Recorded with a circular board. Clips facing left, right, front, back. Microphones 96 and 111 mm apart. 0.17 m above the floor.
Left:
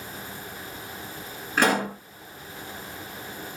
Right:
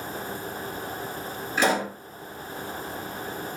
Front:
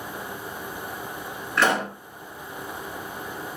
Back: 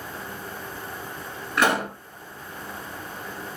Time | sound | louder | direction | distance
1.6 | a pop | left 1 dB, even | 105° left | 2.5 m